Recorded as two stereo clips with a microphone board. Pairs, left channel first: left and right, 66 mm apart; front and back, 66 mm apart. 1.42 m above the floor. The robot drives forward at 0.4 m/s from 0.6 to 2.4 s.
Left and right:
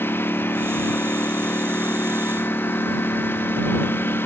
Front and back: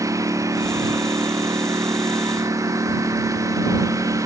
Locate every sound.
0.0 s a lawn mower: 145° left